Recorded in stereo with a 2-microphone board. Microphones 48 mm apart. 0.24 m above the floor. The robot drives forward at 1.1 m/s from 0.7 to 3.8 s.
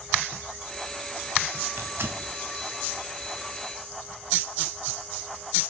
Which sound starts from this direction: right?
Tearing paper, at 1.8 s.